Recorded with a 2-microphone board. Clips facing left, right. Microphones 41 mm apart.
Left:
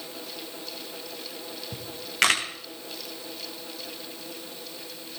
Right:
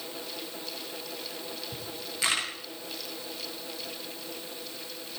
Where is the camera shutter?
70° left (ahead or behind), 6.5 m.